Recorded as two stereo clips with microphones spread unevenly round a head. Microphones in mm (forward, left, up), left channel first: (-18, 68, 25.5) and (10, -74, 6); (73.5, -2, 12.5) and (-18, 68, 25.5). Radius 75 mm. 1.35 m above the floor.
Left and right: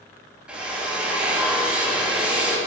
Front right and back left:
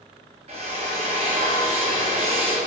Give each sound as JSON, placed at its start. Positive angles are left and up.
{"t": 0.5, "sound": "a drill", "azimuth_deg": -165, "distance_m": 1.9}